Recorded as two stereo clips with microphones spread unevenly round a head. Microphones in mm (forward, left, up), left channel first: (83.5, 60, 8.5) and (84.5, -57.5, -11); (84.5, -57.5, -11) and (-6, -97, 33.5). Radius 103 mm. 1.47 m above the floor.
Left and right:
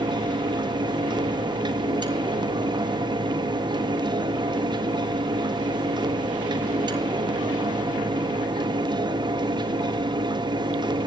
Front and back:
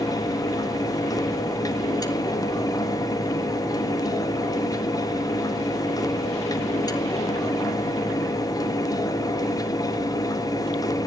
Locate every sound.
0.0 s a fan: 35° right, 1.6 m